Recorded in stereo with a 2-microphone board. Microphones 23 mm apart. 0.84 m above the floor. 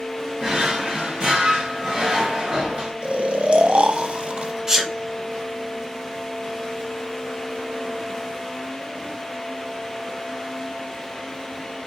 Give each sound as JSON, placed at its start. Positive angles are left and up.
{"t": 0.4, "sound": "a drawer", "side_deg": -45, "distance_m": 1.9}
{"t": 3.0, "sound": "snoring", "side_deg": -60, "distance_m": 0.5}
{"t": 4.7, "sound": "a sneeze", "side_deg": -20, "distance_m": 0.8}